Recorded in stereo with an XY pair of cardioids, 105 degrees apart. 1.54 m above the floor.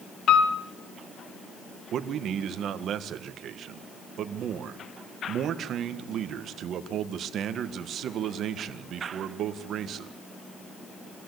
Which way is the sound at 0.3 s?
60° left.